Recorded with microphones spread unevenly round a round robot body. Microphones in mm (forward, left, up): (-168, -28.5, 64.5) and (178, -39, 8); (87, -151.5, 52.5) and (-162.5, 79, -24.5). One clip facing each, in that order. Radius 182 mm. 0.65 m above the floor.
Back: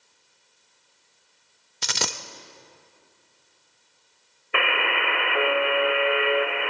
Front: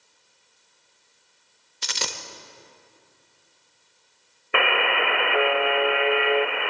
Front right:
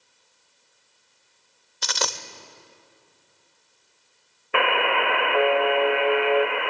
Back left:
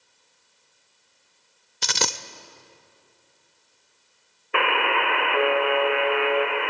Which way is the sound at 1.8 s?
160° right.